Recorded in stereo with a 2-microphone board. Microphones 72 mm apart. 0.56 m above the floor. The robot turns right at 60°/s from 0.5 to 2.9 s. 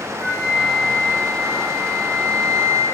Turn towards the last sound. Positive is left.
turn(degrees=170)